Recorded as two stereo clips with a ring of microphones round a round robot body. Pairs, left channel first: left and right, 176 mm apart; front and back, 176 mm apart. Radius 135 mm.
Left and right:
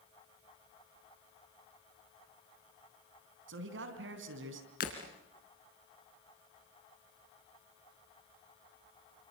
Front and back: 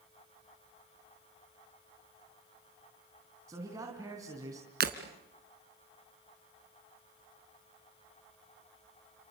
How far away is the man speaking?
About 3.5 m.